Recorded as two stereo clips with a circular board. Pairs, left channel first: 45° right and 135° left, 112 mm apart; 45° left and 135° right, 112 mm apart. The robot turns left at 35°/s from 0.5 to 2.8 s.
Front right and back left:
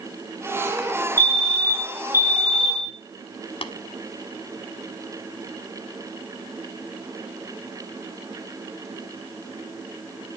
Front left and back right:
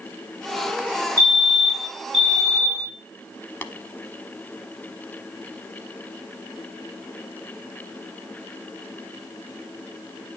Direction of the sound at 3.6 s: 30° right.